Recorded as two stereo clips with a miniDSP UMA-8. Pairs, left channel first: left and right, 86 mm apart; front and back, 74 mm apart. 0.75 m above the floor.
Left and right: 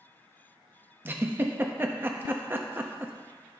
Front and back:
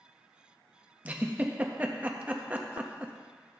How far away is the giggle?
About 0.6 m.